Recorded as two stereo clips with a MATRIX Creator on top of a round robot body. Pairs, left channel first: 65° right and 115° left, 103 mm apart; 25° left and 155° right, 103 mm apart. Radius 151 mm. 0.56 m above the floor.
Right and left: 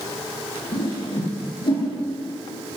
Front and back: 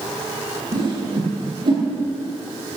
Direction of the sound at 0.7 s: 115° right.